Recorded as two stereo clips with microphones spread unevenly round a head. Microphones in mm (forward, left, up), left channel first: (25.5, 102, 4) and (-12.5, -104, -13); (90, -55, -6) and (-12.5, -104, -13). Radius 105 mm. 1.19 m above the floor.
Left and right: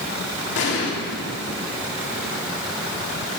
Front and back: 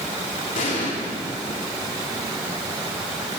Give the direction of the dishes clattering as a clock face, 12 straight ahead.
No dishes clattering in this recording.